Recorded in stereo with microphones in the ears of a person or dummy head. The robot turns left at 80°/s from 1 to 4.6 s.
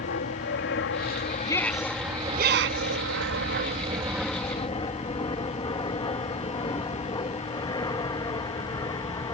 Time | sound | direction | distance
0.0 | an aircraft | 65° left (ahead or behind) | ?
1.5 | a shout | 25° left (ahead or behind) | ?